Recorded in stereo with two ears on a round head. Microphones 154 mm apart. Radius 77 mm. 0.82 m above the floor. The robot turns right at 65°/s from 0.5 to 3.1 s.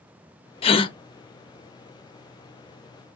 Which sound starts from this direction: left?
A gasp, at 0.6 s.